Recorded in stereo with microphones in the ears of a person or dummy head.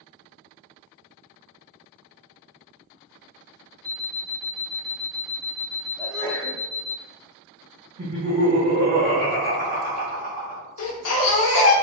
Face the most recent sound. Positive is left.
turn(degrees=75)  # may be behind; listen again after turning